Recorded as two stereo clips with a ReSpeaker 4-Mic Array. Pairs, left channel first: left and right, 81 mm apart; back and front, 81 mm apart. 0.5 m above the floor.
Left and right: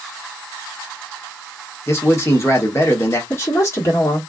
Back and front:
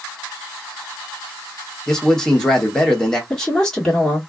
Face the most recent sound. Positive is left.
turn(degrees=100)